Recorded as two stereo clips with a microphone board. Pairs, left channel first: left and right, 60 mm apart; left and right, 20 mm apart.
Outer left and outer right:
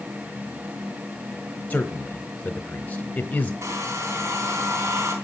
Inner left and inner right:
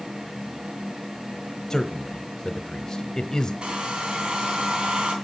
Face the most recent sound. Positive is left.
turn(degrees=-60)  # may be behind; listen again after turning